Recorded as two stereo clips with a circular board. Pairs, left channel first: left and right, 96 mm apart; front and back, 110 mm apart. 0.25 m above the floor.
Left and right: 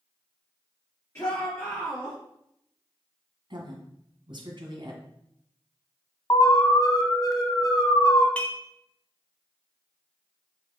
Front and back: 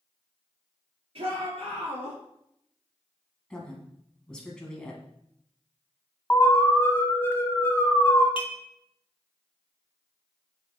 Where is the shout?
150° left, 3.5 m; by 2.2 s 160° left, 3 m.